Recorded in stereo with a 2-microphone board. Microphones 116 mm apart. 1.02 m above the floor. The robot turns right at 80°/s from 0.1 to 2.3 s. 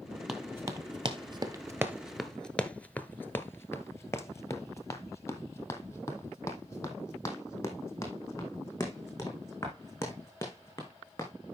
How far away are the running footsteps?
About 1.7 m.